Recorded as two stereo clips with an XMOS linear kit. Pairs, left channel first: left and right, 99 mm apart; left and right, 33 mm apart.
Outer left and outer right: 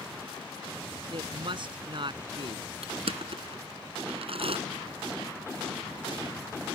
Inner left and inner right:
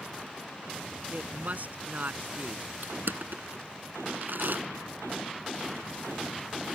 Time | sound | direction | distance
1.1 | a woman speaking | 55° right (ahead or behind) | ?
2.8 | crushing | 80° right | ?